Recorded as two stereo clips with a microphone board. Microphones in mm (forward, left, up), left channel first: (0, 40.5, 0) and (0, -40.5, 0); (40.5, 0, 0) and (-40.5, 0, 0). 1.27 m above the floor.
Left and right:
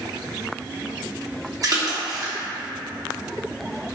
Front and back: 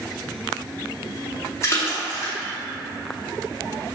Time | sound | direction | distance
1.6 | a splash | 50° right | 0.7 m